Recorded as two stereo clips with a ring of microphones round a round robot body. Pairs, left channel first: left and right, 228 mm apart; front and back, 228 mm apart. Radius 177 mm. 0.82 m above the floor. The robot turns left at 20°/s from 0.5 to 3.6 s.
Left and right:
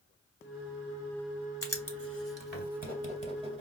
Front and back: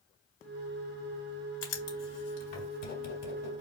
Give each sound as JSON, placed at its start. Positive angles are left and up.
{"t": 1.6, "sound": "writing", "azimuth_deg": 15, "distance_m": 3.0}